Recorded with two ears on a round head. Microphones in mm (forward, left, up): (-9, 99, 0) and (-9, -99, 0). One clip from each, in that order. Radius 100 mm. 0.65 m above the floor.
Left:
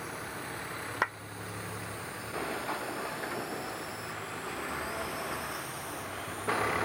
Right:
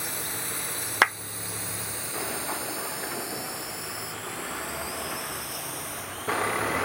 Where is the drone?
80° right; by 6.8 s 25° right (ahead or behind).